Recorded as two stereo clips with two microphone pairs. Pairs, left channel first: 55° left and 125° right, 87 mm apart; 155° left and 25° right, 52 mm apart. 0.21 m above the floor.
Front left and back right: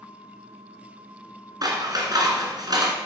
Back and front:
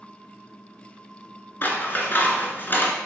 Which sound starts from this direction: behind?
Scissors, at 1.6 s.